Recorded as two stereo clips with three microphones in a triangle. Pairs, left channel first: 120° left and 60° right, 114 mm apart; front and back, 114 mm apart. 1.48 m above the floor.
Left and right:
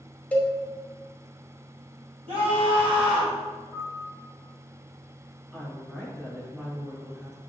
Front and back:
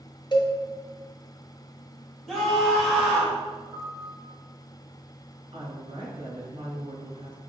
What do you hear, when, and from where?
0.3 s a cowbell: 45° left, 1.2 m
2.3 s a scream: 100° right, 2.5 m
3.7 s a piano: 135° right, 3 m
5.5 s a woman speaking: 145° right, 3 m